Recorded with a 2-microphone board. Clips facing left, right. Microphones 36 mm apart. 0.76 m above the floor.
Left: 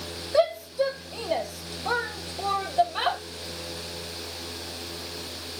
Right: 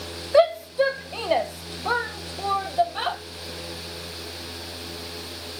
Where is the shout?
30° right (ahead or behind), 1.1 m; by 3.2 s 5° left (ahead or behind), 1.5 m.